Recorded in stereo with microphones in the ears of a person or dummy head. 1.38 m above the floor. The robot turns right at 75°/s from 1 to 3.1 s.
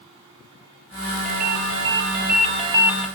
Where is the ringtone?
135° right, 1.8 m; by 3.1 s straight ahead, 1.8 m.